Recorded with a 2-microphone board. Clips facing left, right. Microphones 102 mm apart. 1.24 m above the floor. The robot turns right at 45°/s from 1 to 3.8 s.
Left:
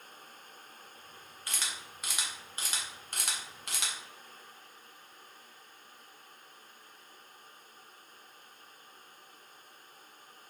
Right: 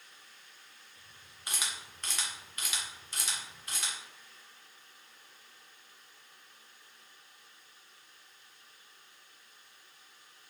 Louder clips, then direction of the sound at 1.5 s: Right 1 dB; 20° right (ahead or behind).